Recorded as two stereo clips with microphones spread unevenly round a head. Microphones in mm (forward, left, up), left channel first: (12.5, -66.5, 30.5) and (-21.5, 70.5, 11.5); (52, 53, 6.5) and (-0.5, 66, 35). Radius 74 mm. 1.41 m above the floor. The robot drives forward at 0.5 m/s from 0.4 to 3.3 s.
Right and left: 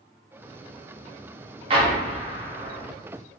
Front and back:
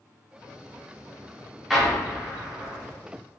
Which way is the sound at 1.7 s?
140° left.